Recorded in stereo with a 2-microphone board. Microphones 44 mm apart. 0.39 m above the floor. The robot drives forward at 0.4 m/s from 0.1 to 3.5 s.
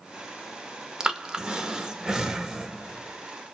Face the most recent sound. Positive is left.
turn(degrees=-10)  # may be behind; listen again after turning